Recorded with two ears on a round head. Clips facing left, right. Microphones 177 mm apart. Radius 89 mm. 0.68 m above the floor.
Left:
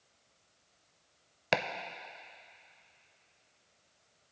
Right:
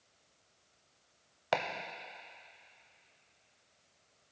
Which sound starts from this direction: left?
Chopping, at 1.5 s.